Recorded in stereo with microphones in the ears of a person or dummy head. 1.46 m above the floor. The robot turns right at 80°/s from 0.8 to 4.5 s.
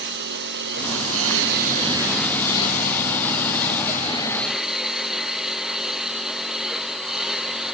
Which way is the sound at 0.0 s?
115° right.